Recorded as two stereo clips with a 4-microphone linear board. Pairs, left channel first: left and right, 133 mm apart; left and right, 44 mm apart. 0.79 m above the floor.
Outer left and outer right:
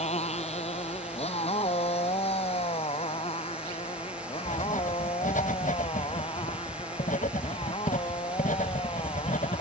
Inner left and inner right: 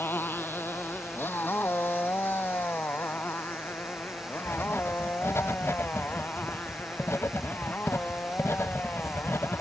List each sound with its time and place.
0.0 s a motorcycle: 55° left (ahead or behind); by 9.6 s 45° left (ahead or behind)
4.5 s writing: 75° left (ahead or behind)